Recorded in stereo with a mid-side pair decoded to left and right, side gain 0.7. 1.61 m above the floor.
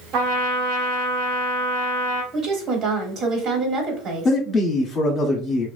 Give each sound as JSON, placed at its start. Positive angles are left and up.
{"t": 0.1, "sound": "a trumpet", "azimuth_deg": -55, "distance_m": 1.0}
{"t": 2.3, "sound": "a woman speaking", "azimuth_deg": -55, "distance_m": 1.2}
{"t": 4.2, "sound": "a man speaking", "azimuth_deg": 35, "distance_m": 0.8}